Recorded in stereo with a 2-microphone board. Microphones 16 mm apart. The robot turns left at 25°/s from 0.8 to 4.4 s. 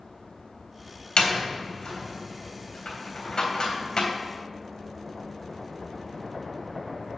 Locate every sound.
1.2 s a door slam: 60° left (ahead or behind), 3 m; by 4.1 s 45° left (ahead or behind), 3 m